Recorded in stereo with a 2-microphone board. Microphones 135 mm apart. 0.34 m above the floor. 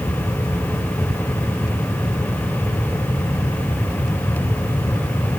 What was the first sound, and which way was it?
Only background noise.